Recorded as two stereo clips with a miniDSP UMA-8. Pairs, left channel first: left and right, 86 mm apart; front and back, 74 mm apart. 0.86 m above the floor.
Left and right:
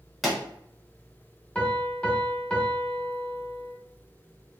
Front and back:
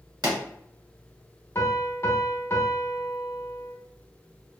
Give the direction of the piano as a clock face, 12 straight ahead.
11 o'clock.